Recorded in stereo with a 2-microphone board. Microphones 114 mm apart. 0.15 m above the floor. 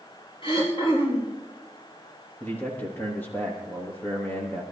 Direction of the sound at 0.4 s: 45° left (ahead or behind).